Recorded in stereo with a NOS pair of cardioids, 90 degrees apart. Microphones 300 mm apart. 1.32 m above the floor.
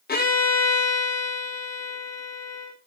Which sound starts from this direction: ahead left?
A violin, at 0.1 s.